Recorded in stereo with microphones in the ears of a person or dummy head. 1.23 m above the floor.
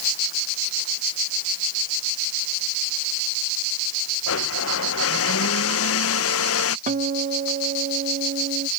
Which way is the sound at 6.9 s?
40° right (ahead or behind).